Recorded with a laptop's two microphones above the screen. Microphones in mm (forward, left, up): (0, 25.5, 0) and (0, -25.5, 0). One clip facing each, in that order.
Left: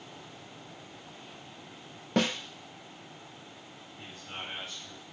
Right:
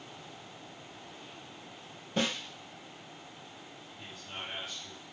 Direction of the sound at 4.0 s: 35° left (ahead or behind).